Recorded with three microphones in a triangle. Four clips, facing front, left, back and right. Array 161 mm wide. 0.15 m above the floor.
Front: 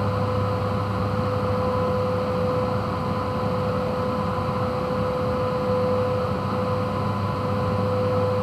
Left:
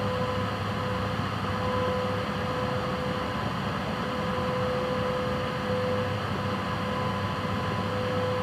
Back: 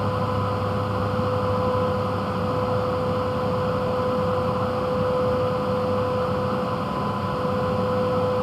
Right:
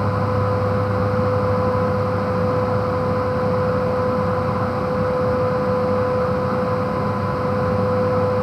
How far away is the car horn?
I don't hear a car horn.